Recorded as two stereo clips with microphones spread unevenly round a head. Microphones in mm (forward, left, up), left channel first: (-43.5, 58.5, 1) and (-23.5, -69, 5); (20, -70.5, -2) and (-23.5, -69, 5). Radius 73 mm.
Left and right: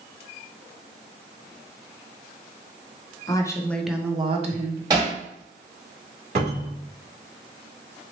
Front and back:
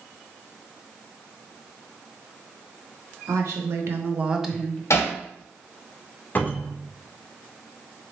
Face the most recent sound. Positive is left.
turn(degrees=-50)